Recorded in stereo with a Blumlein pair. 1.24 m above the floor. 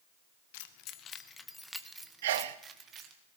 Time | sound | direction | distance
0.5 | keys jangling | 50° left | 0.9 m
2.2 | a sneeze | 55° right | 0.5 m